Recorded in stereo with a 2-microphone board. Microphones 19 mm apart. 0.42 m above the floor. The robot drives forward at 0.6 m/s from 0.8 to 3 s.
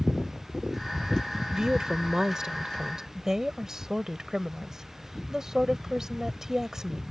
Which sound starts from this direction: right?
A woman speaking, at 1.5 s.